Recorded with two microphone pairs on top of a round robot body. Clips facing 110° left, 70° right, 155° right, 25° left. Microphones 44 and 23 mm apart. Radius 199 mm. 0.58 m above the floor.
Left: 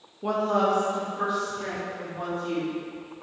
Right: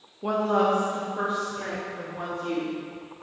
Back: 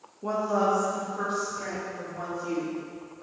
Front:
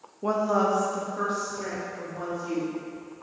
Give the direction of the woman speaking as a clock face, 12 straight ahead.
12 o'clock.